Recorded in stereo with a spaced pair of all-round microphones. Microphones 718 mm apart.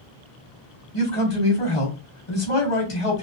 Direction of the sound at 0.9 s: 45° left (ahead or behind).